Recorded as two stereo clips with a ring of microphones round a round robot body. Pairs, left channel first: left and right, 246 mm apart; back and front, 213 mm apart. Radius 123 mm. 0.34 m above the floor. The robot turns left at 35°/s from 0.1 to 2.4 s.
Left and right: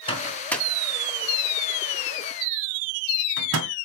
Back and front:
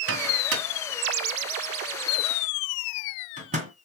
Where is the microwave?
20° left, 2 m; by 3.7 s 60° right, 2 m.